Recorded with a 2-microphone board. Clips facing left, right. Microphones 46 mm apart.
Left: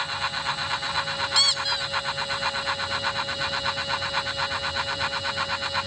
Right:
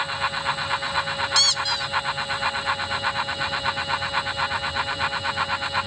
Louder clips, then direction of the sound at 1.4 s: Even; 10° left (ahead or behind).